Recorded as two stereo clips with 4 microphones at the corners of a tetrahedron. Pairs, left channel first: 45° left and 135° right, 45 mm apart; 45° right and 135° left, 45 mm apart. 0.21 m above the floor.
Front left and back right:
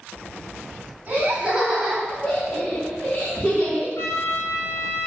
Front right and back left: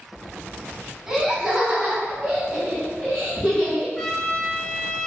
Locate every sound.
1.1 s laughter: 145° right, 1.2 m; by 3.9 s 70° left, 1.9 m
4.0 s a trumpet: 35° left, 0.6 m